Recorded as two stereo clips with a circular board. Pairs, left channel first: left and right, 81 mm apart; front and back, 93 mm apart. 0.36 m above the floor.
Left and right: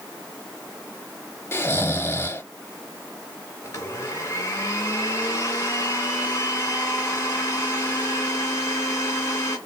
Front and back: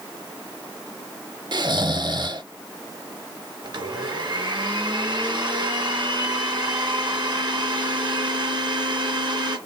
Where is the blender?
145° left, 1.6 m.